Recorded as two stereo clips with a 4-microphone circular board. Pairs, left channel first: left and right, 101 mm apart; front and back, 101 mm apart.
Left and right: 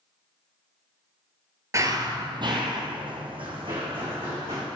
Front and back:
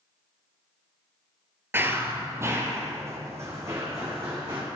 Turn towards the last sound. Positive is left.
turn(degrees=-120)